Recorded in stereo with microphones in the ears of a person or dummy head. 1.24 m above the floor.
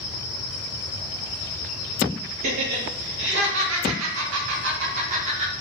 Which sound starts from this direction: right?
Laughter, at 2.4 s.